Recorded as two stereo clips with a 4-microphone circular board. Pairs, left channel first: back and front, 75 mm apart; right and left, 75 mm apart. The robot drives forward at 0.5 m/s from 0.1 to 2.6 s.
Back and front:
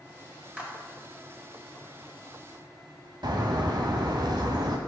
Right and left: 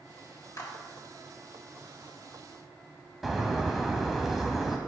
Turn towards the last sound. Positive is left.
turn(degrees=0)